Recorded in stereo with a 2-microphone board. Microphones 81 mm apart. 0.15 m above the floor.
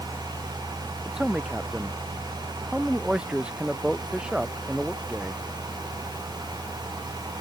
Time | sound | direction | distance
1.1 | a man speaking | 10° right (ahead or behind) | ?